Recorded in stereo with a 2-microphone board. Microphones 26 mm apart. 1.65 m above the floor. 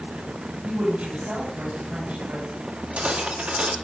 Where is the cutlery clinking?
65° right (ahead or behind), 2 m.